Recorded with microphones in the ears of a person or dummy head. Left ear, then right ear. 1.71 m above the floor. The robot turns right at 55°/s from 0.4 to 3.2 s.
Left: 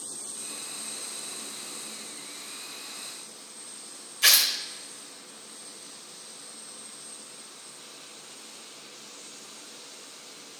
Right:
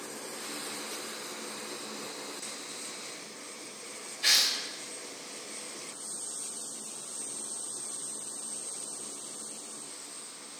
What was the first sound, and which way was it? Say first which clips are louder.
Tearing paper: left 4 dB; 50° left (ahead or behind).